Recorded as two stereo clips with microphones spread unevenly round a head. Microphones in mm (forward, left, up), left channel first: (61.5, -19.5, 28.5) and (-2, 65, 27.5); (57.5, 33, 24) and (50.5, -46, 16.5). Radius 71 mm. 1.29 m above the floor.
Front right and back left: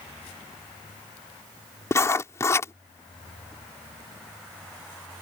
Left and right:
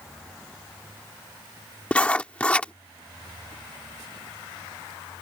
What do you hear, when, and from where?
1.9 s writing: 10° left